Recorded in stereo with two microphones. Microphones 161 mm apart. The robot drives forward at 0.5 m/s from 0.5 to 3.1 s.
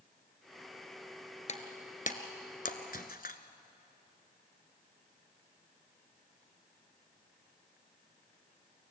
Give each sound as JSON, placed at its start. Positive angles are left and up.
{"t": 1.5, "sound": "breaking glass", "side_deg": 45, "distance_m": 1.7}